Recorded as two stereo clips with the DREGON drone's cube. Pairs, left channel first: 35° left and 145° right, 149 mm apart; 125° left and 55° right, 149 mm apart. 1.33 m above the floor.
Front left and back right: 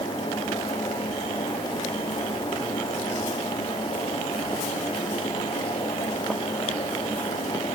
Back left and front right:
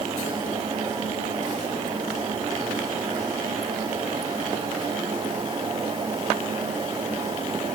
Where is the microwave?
No microwave in this recording.